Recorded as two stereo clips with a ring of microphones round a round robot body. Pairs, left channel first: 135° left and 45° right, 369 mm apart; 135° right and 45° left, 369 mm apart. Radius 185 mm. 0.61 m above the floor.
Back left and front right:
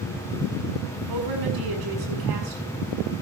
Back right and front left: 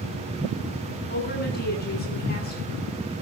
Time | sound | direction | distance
1.1 | a woman speaking | 70° right | 8 m